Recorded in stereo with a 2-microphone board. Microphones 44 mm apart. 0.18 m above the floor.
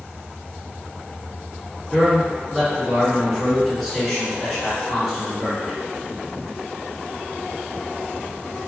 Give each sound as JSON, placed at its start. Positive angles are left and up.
{"t": 1.9, "sound": "a man speaking", "side_deg": 0, "distance_m": 1.8}